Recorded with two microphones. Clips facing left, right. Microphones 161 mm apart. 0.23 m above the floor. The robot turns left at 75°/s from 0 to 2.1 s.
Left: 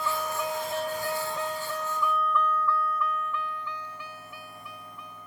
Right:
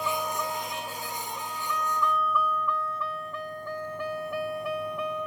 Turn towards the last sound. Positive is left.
turn(degrees=-75)  # may be behind; listen again after turning